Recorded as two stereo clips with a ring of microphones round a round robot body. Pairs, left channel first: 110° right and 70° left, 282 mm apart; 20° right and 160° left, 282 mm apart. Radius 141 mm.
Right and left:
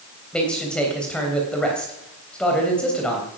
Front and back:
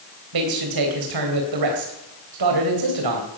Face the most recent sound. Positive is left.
turn(degrees=160)